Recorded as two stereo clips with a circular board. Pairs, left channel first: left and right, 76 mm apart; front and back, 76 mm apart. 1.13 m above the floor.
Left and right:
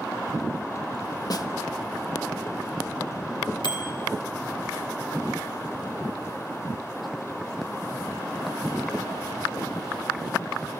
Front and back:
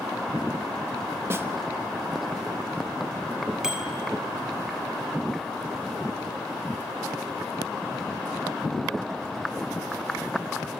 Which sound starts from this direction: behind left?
A snare drum, at 1.3 s.